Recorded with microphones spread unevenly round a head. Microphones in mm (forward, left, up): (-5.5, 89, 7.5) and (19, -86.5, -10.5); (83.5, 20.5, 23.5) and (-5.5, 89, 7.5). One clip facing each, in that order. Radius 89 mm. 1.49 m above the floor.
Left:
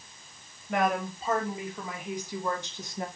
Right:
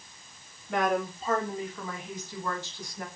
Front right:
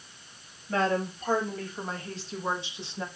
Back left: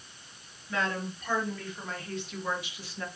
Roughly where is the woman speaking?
Ahead.